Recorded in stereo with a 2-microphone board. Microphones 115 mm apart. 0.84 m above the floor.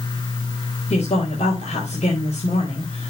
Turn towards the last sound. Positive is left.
turn(degrees=70)  # may be behind; listen again after turning